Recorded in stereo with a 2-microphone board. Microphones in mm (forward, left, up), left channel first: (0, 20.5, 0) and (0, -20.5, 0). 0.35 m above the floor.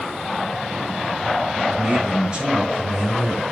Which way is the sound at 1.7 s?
25° right (ahead or behind).